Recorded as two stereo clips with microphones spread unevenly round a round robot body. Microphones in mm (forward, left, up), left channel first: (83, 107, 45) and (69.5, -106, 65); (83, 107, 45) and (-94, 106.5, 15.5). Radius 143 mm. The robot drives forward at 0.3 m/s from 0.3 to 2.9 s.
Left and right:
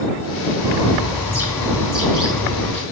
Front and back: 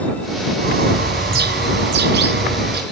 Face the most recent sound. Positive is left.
turn(degrees=165)